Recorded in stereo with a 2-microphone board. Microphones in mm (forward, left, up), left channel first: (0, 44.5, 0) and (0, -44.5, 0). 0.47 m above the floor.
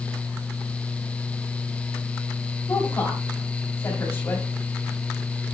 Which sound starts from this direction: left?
A woman speaking, at 2.7 s.